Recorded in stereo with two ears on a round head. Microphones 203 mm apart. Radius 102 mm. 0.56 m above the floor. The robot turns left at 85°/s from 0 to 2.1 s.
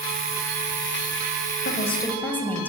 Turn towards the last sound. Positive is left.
turn(degrees=10)